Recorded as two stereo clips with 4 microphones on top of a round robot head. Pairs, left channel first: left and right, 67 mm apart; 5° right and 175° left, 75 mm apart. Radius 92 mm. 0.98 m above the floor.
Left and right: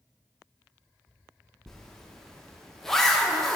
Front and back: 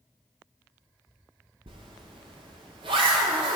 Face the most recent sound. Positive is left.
turn(degrees=175)